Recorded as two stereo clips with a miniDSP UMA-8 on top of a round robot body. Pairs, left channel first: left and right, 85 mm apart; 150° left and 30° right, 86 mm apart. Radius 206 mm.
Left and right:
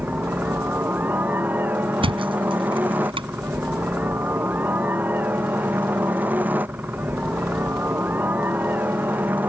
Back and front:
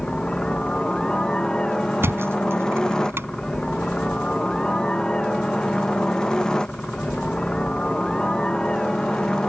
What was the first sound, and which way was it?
A helicopter, 140° right.